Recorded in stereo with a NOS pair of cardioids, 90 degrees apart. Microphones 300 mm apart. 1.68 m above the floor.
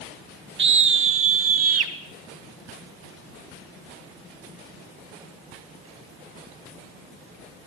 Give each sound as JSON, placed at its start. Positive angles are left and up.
{"t": 0.6, "sound": "a scream", "azimuth_deg": -40, "distance_m": 1.4}